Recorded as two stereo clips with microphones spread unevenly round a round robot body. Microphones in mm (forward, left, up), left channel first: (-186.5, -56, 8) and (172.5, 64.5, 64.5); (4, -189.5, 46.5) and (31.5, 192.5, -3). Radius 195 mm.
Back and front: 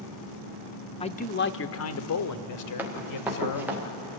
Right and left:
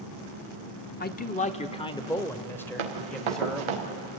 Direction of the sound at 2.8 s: 105° left.